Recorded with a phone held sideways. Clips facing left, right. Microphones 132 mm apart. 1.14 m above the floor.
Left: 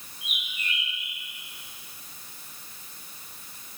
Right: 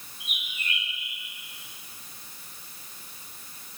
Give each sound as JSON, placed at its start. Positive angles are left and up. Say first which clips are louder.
{"t": 0.2, "sound": "a bird", "louder": "left 1 dB", "side_deg": -80, "distance_m": 4.0}